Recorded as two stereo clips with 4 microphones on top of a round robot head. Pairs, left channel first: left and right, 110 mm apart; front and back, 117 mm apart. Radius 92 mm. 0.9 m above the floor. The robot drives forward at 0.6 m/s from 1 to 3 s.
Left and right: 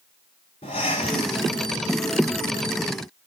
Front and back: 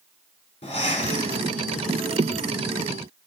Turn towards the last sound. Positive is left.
turn(degrees=50)